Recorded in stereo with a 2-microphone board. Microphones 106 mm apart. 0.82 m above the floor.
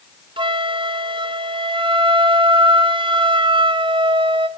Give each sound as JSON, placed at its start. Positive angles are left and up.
{"t": 0.4, "sound": "a flute", "side_deg": -50, "distance_m": 0.5}